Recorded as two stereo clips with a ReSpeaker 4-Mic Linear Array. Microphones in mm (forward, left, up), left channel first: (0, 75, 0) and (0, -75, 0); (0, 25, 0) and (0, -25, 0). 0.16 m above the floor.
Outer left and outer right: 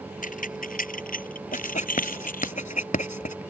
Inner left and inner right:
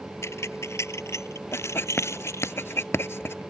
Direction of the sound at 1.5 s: 60° left (ahead or behind).